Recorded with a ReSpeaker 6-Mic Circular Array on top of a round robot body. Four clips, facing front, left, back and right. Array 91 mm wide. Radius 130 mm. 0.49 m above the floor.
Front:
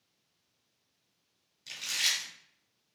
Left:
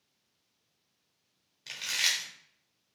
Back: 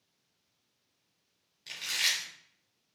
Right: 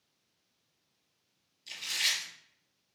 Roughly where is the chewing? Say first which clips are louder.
Left 2 dB, back 2 dB; left.